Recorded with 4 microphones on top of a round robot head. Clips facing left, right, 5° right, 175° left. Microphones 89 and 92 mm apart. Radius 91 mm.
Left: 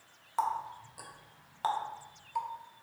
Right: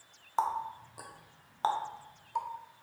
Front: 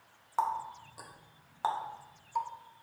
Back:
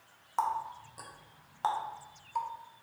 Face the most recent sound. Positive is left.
turn(degrees=-80)